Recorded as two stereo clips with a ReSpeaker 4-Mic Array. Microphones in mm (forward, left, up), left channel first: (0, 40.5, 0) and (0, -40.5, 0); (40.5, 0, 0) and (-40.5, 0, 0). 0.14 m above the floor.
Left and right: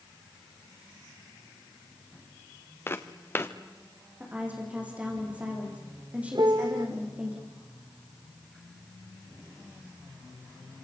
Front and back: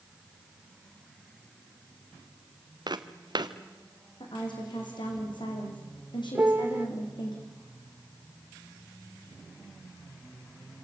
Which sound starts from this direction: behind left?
Footsteps, at 2.9 s.